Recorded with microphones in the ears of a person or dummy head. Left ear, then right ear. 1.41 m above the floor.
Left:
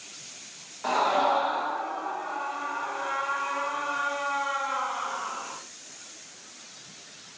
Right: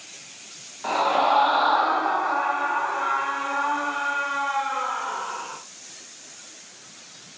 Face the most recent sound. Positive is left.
turn(degrees=-30)  # may be behind; listen again after turning